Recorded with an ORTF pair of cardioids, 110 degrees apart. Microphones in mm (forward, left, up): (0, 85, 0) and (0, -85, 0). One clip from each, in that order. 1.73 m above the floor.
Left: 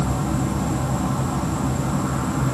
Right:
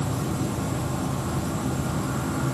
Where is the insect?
40° left, 1.3 m.